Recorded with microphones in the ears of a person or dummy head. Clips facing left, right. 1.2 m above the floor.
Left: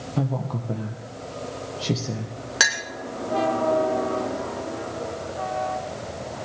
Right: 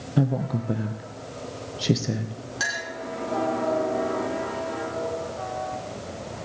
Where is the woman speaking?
15° right (ahead or behind), 0.9 m.